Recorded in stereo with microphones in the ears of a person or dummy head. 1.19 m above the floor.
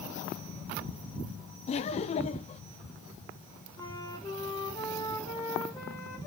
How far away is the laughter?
About 0.7 m.